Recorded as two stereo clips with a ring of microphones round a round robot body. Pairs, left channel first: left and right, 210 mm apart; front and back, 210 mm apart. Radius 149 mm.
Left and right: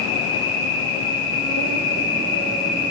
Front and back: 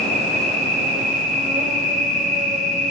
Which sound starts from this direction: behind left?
An insect, at 0.0 s.